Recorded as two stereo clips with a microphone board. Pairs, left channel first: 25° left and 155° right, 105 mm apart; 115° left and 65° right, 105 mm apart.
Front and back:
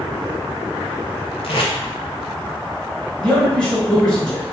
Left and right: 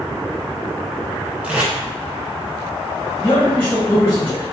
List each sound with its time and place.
1.4 s tape being pulled: 10° left, 0.6 m
3.2 s a man speaking: 90° left, 1.4 m